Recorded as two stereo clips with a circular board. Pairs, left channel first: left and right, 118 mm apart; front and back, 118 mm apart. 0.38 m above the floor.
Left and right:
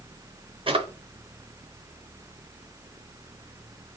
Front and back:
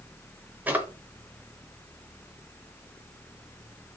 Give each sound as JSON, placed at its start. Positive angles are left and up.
{"t": 0.7, "sound": "a drawer", "azimuth_deg": -110, "distance_m": 0.7}